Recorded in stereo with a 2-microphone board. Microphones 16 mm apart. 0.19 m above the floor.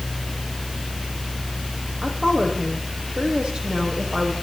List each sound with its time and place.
2.0 s a woman speaking: 70° right (ahead or behind), 8 m; by 4.3 s 80° right, 7 m